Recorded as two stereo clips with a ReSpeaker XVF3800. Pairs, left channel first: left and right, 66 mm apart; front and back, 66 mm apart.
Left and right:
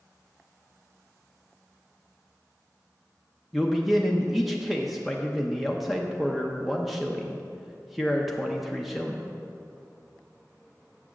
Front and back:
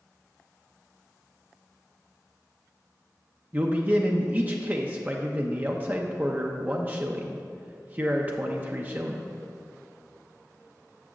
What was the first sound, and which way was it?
A man speaking, 175° right.